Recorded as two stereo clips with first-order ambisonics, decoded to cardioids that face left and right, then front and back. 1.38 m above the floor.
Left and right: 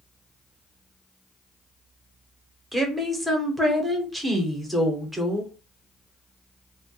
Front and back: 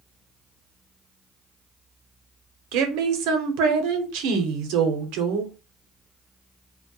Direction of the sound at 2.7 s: 170° right.